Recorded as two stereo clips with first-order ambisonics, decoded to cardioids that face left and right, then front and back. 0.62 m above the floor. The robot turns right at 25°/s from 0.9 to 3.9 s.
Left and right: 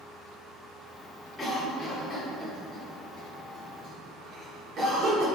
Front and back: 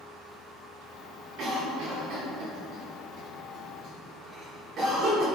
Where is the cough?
165° left, 0.8 m; by 5.3 s 130° right, 0.8 m.